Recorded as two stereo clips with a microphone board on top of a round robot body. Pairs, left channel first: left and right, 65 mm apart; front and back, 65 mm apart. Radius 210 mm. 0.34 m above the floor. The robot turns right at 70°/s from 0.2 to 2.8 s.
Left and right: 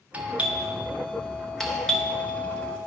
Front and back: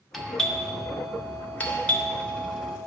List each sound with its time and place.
0.1 s a doorbell: 85° right, 1.6 m; by 2.8 s 95° left, 1.6 m